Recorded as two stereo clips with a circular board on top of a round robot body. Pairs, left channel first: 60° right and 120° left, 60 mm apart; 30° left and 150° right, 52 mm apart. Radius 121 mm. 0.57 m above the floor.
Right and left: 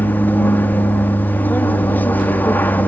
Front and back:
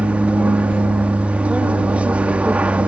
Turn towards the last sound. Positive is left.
turn(degrees=-100)